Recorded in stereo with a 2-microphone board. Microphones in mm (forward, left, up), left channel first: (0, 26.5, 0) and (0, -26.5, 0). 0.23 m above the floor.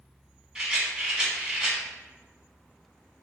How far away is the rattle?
About 0.8 m.